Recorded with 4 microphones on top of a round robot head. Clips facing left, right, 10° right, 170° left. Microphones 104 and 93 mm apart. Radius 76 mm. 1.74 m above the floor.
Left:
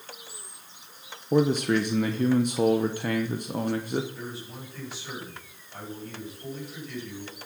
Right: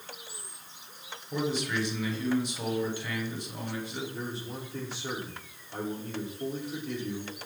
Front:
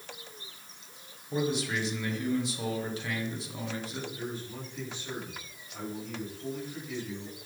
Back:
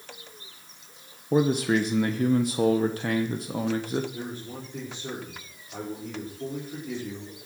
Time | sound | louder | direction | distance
1.3 | a man speaking | left 9 dB, back 8 dB | 130° left | 1.1 m
4.1 | a man speaking | right 2 dB, back 2 dB | 150° right | 6 m